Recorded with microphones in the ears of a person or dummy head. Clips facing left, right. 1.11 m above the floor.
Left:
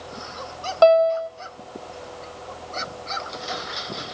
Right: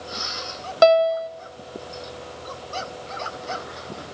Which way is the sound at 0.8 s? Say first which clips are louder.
Left 1 dB; 20° right (ahead or behind).